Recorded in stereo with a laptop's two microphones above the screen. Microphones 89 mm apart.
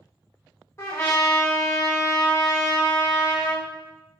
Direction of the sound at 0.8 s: 30° left (ahead or behind).